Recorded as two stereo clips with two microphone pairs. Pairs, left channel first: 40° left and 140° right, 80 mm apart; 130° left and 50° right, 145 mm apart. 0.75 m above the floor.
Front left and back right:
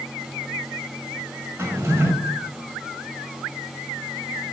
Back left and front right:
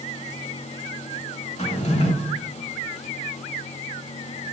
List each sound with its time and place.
1.6 s a drawer: 165° left, 1.3 m